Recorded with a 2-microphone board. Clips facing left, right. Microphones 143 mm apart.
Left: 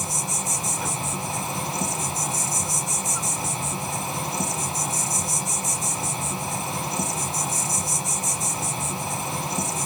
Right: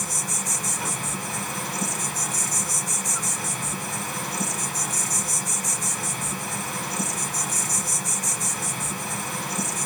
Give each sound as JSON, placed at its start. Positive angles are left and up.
{"t": 0.0, "sound": "an insect", "side_deg": 25, "distance_m": 1.5}